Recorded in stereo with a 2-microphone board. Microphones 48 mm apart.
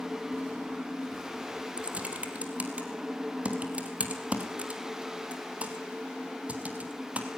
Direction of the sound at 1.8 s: 30° right (ahead or behind).